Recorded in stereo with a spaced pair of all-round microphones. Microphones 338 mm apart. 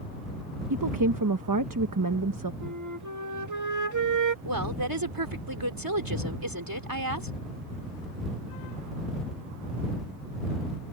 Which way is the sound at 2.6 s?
60° right (ahead or behind).